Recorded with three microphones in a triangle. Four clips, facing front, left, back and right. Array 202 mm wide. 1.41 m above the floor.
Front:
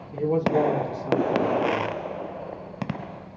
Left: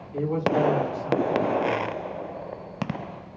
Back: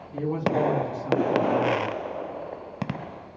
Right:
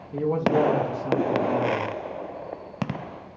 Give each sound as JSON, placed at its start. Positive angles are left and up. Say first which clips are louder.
{"t": 0.1, "sound": "a man speaking", "louder": "right 2 dB, front 3 dB", "azimuth_deg": -80, "distance_m": 3.0}